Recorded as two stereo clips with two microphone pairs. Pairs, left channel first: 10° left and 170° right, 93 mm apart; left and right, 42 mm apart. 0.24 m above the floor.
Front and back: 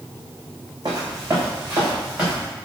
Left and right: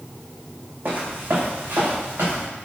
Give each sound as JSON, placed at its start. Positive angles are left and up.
{"t": 0.8, "sound": "footsteps", "azimuth_deg": -125, "distance_m": 1.1}